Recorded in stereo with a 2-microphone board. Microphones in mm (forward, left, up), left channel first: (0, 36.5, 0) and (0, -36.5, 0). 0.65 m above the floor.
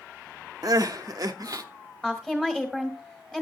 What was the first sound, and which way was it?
Crying, 55° right (ahead or behind).